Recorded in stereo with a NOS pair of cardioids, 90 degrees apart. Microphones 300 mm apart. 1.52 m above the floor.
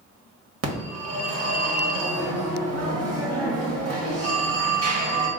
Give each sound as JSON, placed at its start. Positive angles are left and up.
{"t": 0.6, "sound": "a phone ringing", "azimuth_deg": -55, "distance_m": 1.2}